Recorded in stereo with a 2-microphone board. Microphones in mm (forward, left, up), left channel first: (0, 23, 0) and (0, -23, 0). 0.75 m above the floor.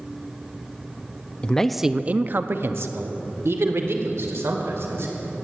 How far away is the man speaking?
About 0.6 m.